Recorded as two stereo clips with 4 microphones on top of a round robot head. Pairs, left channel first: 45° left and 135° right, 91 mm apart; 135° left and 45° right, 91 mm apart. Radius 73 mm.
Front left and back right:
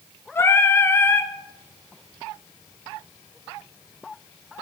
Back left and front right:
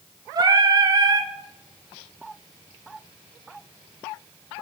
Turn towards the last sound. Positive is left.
turn(degrees=-15)